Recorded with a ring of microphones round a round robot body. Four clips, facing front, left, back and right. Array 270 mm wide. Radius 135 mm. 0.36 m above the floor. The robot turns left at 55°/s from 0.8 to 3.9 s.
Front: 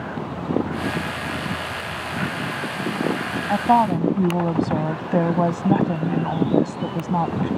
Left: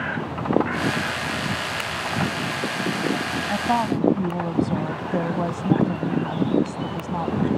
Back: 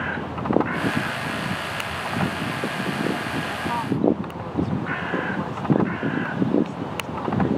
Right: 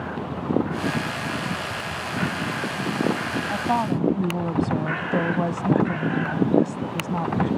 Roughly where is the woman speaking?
Ahead.